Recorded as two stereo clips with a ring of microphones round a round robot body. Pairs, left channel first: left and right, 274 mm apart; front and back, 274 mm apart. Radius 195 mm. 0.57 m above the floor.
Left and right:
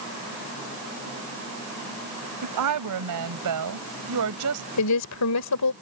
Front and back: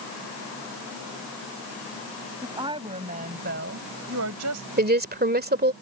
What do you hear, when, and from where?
2.4 s a woman speaking: 100° right; by 4.7 s 140° right
4.8 s a woman speaking: 125° left